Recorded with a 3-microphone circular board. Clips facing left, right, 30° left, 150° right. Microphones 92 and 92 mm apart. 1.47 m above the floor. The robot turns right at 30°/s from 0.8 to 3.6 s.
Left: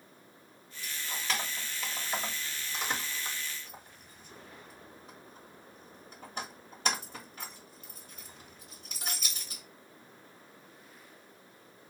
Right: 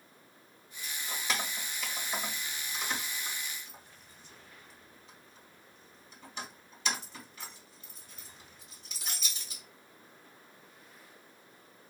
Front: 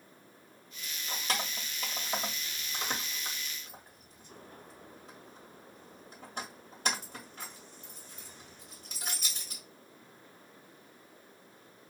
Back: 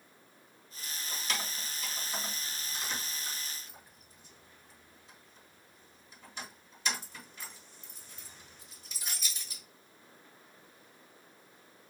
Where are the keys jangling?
25° right, 1.7 m; by 9.6 s 55° left, 1.7 m.